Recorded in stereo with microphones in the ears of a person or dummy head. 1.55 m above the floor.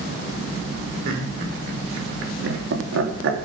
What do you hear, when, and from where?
1.1 s laughter: 65° right (ahead or behind), 4.5 m; by 3.5 s 70° right (ahead or behind), 2.5 m